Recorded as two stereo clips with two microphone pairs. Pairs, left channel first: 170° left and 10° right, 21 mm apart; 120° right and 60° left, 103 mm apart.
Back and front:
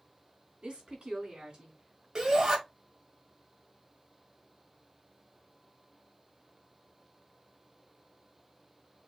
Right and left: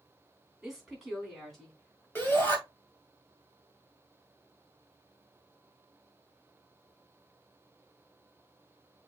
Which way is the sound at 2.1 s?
55° right.